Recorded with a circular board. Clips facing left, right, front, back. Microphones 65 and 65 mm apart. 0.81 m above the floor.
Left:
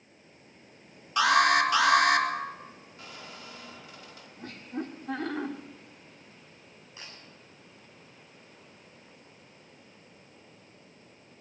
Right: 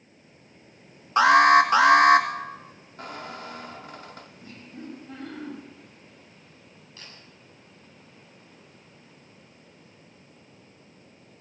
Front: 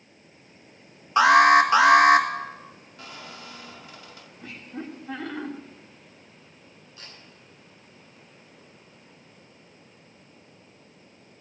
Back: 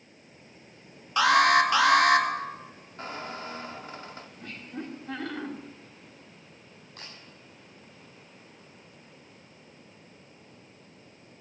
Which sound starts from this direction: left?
Laughter, at 4.4 s.